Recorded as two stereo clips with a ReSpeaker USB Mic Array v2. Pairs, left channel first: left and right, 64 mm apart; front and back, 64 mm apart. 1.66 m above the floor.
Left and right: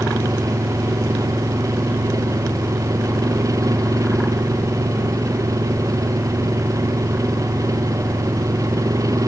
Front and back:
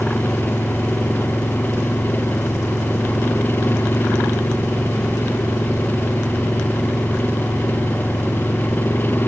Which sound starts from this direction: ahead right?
An engine running, at 0.0 s.